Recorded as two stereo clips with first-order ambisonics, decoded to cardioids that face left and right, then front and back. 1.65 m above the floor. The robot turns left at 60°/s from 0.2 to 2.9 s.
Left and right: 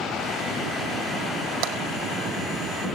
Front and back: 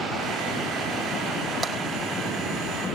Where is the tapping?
100° right, 3 m; by 1.8 s 110° right, 3 m.